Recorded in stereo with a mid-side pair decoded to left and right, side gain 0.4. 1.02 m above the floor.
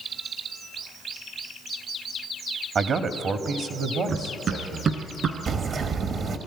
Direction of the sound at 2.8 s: 60° right.